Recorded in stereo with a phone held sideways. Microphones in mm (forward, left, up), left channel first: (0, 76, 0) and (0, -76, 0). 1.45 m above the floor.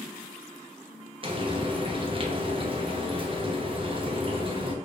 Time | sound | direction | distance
1.2 | frying | 35° right (ahead or behind) | 0.8 m